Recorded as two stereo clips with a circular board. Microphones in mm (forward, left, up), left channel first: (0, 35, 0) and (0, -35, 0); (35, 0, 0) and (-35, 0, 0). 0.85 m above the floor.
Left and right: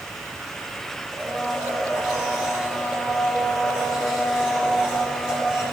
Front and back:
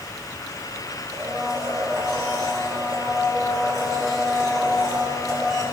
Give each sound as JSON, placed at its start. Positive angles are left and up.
{"t": 1.1, "sound": "a blender", "azimuth_deg": -165, "distance_m": 4.0}